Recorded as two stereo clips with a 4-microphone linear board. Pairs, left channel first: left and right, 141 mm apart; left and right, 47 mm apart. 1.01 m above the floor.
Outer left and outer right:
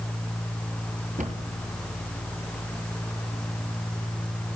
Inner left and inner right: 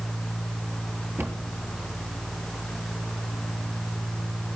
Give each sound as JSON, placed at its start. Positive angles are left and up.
{"t": 1.2, "sound": "a cupboard door", "side_deg": -65, "distance_m": 6.5}